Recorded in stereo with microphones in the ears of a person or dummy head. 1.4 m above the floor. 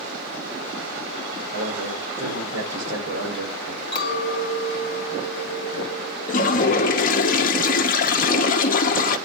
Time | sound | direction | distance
1.5 | a man speaking | 75° right (ahead or behind) | 6.5 m
3.9 | a clink | 30° left (ahead or behind) | 3 m
6.3 | a toilet flushing | 40° left (ahead or behind) | 0.6 m